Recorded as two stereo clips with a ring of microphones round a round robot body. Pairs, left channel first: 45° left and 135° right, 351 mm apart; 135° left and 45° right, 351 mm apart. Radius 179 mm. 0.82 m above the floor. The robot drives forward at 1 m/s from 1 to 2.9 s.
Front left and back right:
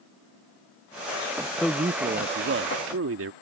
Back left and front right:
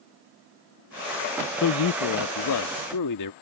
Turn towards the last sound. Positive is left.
turn(degrees=170)